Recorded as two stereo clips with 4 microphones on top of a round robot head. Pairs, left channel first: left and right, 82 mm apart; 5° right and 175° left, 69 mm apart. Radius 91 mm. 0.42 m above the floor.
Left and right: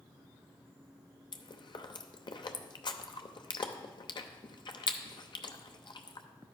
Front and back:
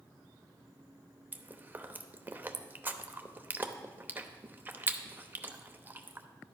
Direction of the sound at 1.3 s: 110° left.